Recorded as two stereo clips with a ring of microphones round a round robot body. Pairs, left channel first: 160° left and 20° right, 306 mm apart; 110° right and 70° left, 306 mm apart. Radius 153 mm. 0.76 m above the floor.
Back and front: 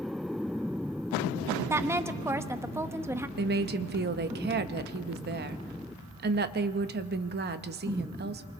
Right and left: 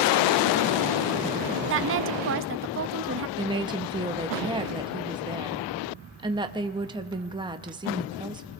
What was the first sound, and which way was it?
A woman speaking, 55° left.